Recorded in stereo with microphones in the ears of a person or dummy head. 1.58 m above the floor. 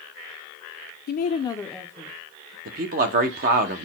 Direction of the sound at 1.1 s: 50° left (ahead or behind).